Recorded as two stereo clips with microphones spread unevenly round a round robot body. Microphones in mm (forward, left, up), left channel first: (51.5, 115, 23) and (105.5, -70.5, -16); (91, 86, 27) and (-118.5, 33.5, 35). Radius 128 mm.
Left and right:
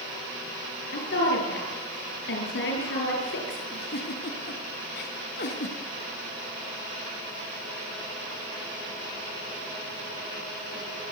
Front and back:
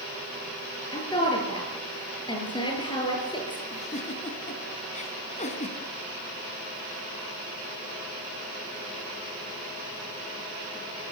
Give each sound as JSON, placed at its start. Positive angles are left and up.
{"t": 0.9, "sound": "a woman speaking", "azimuth_deg": 85, "distance_m": 8.5}
{"t": 3.7, "sound": "a giggle", "azimuth_deg": 70, "distance_m": 3.5}